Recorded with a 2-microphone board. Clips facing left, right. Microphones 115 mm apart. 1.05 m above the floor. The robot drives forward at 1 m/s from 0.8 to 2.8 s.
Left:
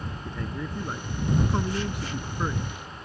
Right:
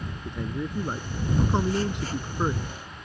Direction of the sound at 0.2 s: 20° right (ahead or behind).